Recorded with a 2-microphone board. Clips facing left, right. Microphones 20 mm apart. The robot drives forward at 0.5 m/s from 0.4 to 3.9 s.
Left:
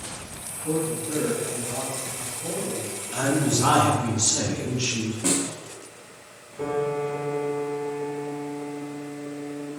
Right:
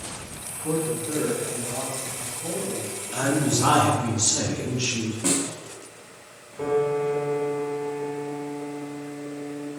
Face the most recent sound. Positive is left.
turn(degrees=-25)  # may be behind; listen again after turning